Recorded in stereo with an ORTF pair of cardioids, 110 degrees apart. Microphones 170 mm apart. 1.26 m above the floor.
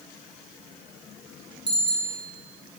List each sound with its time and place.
1.7 s a bicycle bell: 25° right, 8 m